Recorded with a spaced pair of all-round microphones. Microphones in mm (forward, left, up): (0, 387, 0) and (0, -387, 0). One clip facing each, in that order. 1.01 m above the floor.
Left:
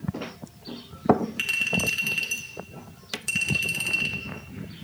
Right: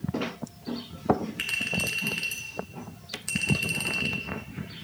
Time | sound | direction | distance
1.4 | a clink | 65° left (ahead or behind) | 1.9 m